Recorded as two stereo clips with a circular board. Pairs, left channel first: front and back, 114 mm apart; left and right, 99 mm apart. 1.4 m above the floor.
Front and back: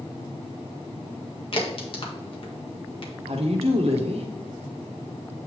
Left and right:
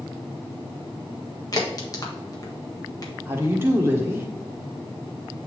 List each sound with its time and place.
1.5 s a crack: 40° left, 1.6 m
3.3 s a woman speaking: 155° right, 1.4 m